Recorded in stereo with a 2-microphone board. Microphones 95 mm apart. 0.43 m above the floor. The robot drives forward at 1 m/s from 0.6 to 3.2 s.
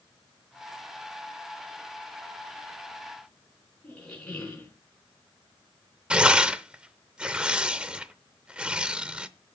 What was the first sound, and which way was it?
A squeak, 15° left (ahead or behind).